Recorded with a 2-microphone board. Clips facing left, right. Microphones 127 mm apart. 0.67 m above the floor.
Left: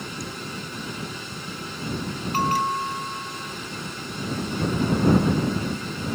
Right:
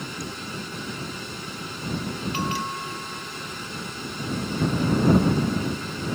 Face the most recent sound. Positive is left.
turn(degrees=45)  # may be behind; listen again after turning